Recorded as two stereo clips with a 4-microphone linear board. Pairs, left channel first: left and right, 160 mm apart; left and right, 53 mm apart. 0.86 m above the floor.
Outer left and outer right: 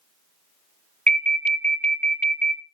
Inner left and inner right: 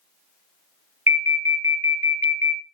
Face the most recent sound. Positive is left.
turn(degrees=-55)  # may be behind; listen again after turning